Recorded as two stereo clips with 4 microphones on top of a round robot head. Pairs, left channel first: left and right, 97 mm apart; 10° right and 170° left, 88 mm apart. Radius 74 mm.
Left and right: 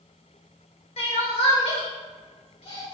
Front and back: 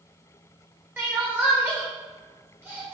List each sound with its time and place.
1.0 s crying: 110° left, 1.5 m